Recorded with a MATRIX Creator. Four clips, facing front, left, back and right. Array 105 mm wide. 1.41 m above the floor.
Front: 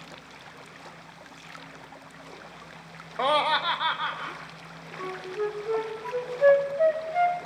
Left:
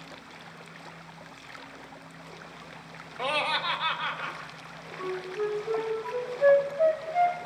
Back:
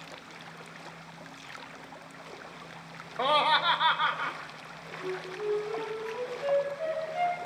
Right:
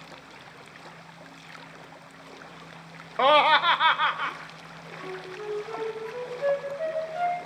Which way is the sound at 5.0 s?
15° left.